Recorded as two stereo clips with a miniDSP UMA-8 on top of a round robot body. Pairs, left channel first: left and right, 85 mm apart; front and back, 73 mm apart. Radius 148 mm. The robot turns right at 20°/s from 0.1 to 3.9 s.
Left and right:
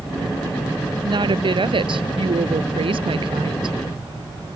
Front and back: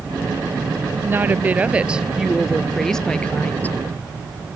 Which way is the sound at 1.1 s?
120° right.